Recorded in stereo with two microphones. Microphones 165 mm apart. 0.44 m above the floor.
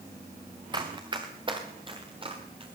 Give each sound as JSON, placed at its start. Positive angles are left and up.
{"t": 0.7, "sound": "running footsteps", "side_deg": -25, "distance_m": 2.5}